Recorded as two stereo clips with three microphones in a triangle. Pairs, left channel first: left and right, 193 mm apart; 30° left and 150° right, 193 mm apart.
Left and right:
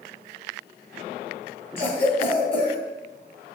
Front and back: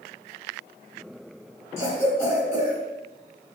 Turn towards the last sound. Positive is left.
turn(degrees=130)